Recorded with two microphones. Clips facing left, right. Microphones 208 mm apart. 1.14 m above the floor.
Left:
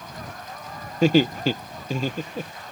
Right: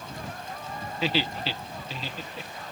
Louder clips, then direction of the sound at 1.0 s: Left 11 dB; 45° left (ahead or behind).